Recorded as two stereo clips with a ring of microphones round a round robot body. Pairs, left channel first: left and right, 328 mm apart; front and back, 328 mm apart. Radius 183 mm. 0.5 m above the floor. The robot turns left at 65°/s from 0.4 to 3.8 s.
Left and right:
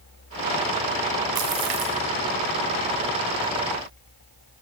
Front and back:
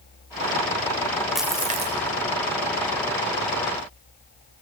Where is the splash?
90° right, 1.6 m; by 2.0 s 130° right, 1.6 m.